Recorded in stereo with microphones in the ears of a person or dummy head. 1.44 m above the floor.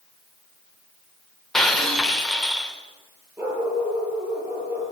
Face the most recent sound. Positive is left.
turn(degrees=-10)  # may be behind; listen again after turning